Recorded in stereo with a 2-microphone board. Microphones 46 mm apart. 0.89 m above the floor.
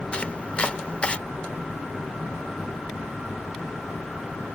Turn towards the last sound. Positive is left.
turn(degrees=25)  # may be behind; listen again after turning